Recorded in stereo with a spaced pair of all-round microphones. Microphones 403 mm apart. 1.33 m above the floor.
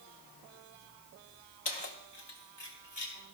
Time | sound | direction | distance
1.6 | keys jangling | 75° left (ahead or behind) | 1.0 m